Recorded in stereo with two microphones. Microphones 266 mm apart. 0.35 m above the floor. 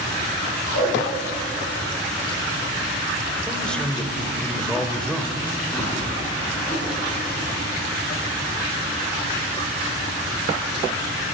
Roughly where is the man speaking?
Centre.